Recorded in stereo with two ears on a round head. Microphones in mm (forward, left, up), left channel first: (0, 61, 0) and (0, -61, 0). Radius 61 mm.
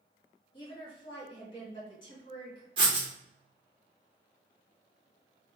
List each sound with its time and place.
0.5 s a woman speaking: 35° left (ahead or behind), 1.3 m
2.8 s writing: 35° right (ahead or behind), 1.1 m